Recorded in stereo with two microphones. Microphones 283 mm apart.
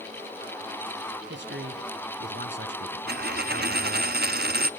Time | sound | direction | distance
1.3 | a man speaking | 45° right (ahead or behind) | 1.8 m
3.1 | a dropped coin | 40° right (ahead or behind) | 0.5 m